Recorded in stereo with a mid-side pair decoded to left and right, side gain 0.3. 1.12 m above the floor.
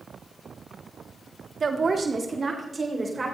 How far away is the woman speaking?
About 1.7 m.